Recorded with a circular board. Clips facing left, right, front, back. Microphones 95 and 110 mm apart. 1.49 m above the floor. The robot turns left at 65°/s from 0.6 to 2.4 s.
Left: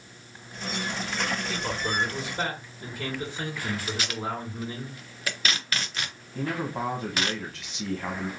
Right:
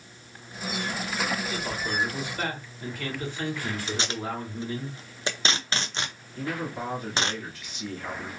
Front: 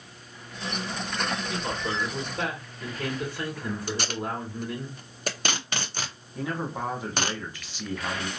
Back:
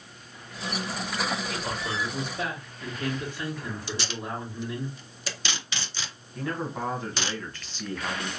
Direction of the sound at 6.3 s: 80° left.